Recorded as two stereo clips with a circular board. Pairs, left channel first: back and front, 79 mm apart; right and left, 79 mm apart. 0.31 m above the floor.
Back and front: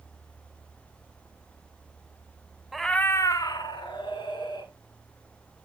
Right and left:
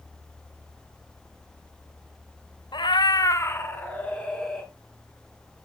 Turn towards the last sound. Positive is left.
turn(degrees=-170)